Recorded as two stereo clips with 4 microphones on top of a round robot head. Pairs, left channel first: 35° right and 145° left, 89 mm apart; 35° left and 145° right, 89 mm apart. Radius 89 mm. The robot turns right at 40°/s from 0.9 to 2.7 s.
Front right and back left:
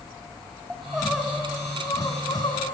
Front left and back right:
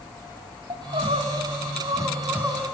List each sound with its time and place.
0.7 s crying: 135° right, 2.0 m; by 2.8 s 60° right, 2.0 m